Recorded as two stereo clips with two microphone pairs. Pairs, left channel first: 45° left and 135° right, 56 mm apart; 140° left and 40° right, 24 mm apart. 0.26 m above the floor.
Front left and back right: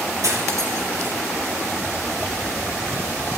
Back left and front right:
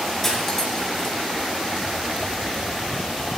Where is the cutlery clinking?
140° right, 4 m.